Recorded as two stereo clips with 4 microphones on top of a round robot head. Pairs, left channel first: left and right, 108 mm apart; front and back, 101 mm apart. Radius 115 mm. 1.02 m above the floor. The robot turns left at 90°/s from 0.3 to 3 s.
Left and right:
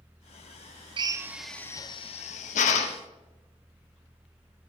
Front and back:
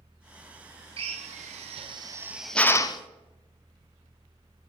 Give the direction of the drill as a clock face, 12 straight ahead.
5 o'clock.